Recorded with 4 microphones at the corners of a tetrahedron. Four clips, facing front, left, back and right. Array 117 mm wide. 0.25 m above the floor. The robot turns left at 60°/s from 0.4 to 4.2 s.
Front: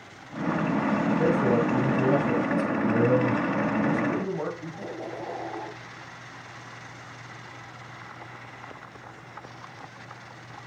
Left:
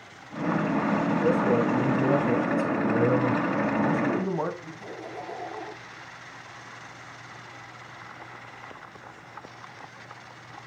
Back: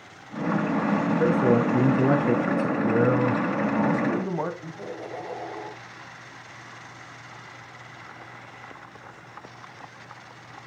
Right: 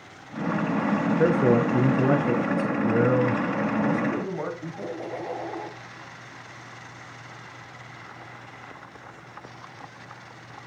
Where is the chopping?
I don't hear chopping.